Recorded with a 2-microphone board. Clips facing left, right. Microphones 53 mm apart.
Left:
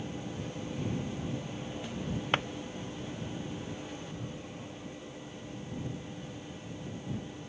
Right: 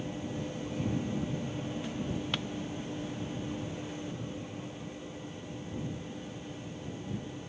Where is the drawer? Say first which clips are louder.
Left 10 dB; 40° left (ahead or behind).